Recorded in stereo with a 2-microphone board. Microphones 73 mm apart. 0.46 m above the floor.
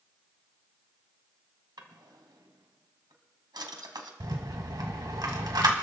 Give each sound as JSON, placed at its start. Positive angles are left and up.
{"t": 1.8, "sound": "a drawer", "side_deg": -75, "distance_m": 1.3}
{"t": 4.2, "sound": "a rattle", "side_deg": -65, "distance_m": 1.7}